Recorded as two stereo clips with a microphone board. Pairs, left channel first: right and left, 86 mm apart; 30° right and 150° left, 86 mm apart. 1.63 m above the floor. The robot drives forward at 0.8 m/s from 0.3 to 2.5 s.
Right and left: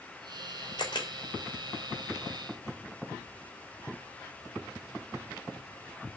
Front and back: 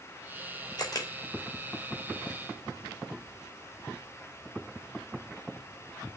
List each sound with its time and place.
0.8 s a camera shutter: 70° right, 3.5 m